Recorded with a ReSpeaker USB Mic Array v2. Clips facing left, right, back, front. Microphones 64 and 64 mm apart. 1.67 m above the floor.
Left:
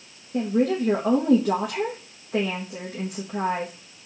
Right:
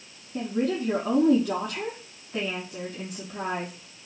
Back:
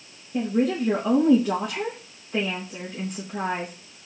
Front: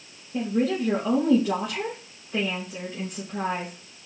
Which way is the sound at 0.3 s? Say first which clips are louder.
Left 5 dB, back 1 dB; 95° left.